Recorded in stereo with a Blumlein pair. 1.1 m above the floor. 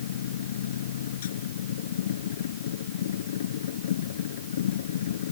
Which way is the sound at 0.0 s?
60° left.